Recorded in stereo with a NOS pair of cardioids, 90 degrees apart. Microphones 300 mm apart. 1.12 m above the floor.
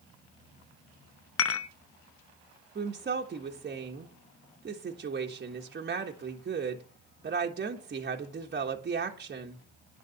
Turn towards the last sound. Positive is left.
turn(degrees=-35)